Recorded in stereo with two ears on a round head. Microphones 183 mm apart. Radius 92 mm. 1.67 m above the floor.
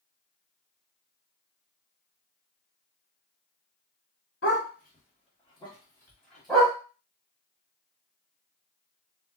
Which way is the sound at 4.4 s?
50° left (ahead or behind).